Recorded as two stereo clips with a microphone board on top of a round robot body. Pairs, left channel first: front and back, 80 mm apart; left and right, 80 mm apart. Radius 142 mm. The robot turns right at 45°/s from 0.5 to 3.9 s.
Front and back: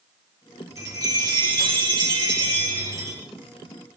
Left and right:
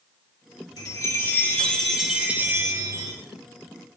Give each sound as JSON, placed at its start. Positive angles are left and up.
{"t": 0.8, "sound": "a chime", "azimuth_deg": 130, "distance_m": 4.5}